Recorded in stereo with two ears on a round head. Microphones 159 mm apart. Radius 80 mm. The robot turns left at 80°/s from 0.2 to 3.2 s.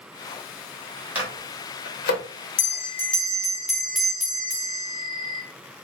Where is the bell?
50° left, 0.6 m; by 5.4 s straight ahead, 0.6 m.